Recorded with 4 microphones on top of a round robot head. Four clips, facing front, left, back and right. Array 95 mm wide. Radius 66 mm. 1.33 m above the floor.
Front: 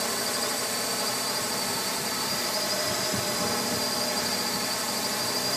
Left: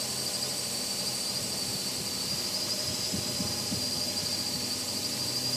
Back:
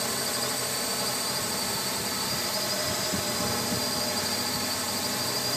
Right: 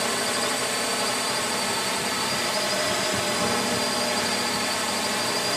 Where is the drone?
85° right.